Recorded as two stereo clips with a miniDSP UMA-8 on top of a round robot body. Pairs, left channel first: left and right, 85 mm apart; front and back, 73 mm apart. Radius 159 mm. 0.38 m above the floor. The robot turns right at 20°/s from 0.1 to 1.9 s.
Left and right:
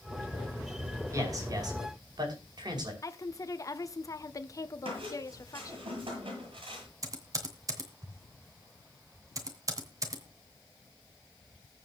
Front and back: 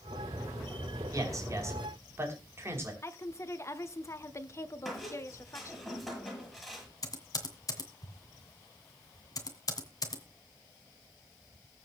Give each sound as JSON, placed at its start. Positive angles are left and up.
{"t": 1.1, "sound": "a man speaking", "azimuth_deg": -140, "distance_m": 5.5}
{"t": 3.0, "sound": "a woman speaking", "azimuth_deg": 45, "distance_m": 1.5}
{"t": 4.8, "sound": "a squeak", "azimuth_deg": -90, "distance_m": 8.5}
{"t": 7.0, "sound": "typing on a keyboard", "azimuth_deg": -40, "distance_m": 2.5}